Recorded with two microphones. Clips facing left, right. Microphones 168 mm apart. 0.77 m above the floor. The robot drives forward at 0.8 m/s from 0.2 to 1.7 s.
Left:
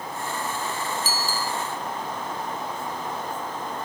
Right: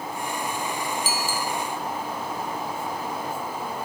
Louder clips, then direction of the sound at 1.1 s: Right 1 dB; 40° left (ahead or behind).